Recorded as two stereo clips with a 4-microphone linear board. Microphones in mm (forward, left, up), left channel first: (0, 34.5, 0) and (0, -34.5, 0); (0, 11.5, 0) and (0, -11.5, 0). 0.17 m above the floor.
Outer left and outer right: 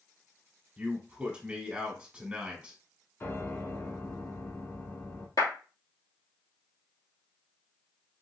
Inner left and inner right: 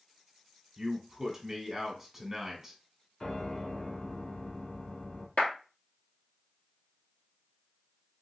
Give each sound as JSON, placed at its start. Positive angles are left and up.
{"t": 0.8, "sound": "a man speaking", "side_deg": -20, "distance_m": 1.3}
{"t": 3.2, "sound": "a piano", "side_deg": 35, "distance_m": 1.0}
{"t": 5.4, "sound": "a clap", "side_deg": 65, "distance_m": 2.0}